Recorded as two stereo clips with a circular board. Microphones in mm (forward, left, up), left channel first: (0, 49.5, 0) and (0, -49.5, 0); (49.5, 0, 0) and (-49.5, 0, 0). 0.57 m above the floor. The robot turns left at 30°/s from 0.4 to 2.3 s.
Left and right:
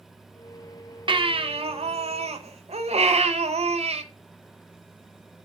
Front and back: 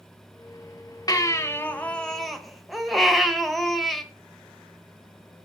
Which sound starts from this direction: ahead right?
A baby crying, at 1.1 s.